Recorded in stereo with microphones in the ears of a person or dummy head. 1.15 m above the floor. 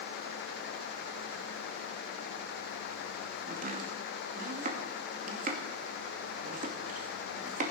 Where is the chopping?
45° right (ahead or behind), 2 m.